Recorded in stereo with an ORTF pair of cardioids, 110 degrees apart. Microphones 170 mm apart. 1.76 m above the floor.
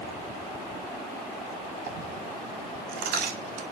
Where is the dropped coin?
70° right, 5.5 m.